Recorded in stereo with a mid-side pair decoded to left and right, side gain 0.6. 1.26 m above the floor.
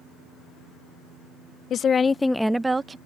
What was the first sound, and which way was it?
A woman speaking, 50° left.